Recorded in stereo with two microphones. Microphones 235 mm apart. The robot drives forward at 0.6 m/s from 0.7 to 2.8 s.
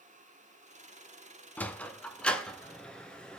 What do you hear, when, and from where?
1.6 s a sliding door: 5° left (ahead or behind), 0.8 m